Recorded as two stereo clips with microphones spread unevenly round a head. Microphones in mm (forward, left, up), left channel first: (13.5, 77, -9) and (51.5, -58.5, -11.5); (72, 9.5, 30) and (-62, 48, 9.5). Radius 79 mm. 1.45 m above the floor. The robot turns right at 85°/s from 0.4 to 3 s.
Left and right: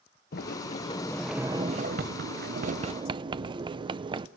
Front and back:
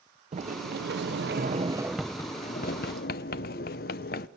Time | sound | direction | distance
0.3 | a sliding door | 120° left | 0.6 m